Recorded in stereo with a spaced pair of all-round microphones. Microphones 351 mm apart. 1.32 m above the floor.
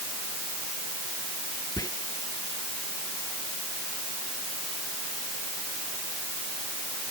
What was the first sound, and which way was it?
Whispering, 10° left (ahead or behind).